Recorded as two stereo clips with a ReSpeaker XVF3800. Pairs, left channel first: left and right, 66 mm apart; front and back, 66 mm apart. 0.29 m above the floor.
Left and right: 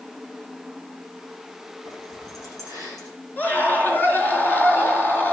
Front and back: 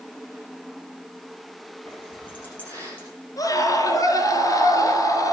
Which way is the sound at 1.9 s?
70° left.